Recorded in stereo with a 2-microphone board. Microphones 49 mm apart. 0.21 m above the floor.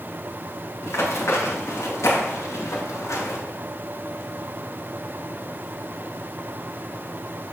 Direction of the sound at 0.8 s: 65° left (ahead or behind).